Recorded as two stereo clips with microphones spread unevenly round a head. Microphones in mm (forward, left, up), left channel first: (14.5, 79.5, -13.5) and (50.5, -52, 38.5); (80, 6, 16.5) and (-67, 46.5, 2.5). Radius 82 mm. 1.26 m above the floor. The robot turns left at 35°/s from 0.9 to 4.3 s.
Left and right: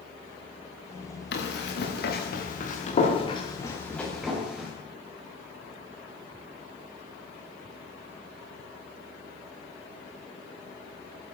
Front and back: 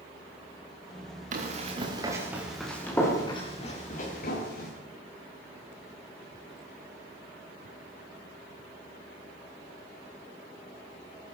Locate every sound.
1.3 s running footsteps: 125° left, 7 m; by 4.7 s 10° left, 11 m